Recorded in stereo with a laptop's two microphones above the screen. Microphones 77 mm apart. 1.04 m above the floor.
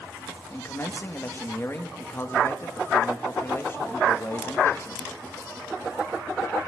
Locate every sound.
0.5 s a man speaking: 30° left (ahead or behind), 1.5 m